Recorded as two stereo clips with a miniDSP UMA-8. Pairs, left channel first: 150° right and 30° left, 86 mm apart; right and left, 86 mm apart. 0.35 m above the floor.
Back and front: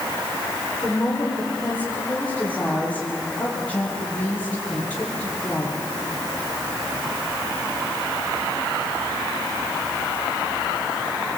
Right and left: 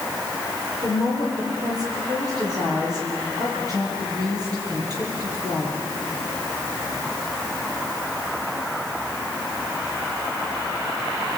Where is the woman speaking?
135° left, 10 m.